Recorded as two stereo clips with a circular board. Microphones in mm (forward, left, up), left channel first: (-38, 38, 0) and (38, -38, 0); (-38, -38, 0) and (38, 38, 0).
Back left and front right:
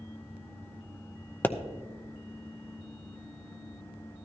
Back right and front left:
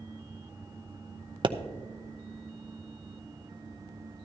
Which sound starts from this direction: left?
A pop, at 1.4 s.